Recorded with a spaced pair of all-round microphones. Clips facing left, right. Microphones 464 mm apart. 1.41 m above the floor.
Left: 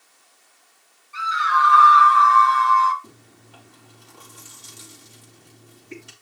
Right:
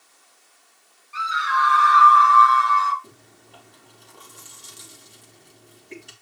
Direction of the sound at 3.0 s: 25° left (ahead or behind).